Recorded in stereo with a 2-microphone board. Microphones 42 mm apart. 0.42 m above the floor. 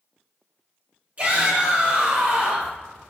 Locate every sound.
1.2 s a shout: 30° right (ahead or behind), 1.3 m